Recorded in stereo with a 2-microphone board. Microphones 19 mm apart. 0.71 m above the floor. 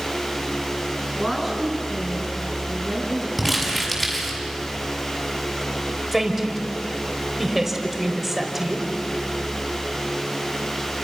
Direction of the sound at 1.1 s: Centre (ahead or behind).